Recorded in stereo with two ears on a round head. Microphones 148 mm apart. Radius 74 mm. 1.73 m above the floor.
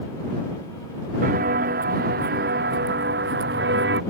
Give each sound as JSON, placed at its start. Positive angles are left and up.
{"t": 1.2, "sound": "footsteps", "side_deg": -55}